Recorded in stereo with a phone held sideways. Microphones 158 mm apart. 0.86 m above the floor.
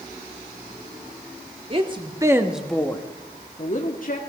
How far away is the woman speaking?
About 1.8 m.